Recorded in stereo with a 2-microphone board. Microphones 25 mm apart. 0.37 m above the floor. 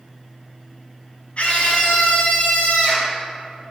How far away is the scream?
About 3.5 m.